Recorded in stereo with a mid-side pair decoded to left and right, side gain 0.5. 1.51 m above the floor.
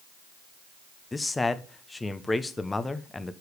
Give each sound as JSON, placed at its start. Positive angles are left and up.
{"t": 1.1, "sound": "a man speaking", "azimuth_deg": 20, "distance_m": 1.0}